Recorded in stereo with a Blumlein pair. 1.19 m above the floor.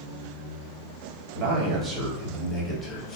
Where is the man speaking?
40° right, 1.0 m; by 3.2 s 25° left, 1.0 m.